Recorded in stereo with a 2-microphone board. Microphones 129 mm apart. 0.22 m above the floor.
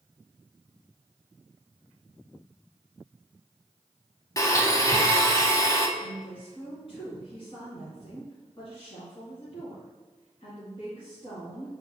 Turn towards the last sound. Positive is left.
turn(degrees=40)  # may be behind; listen again after turning